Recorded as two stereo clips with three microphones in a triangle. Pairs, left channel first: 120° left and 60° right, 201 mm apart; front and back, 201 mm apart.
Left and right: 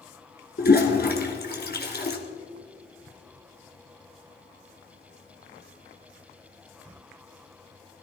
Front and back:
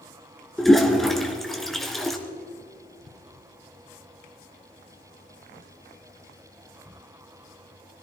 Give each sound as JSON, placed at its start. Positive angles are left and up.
{"t": 0.6, "sound": "a toilet flushing", "azimuth_deg": 90, "distance_m": 2.0}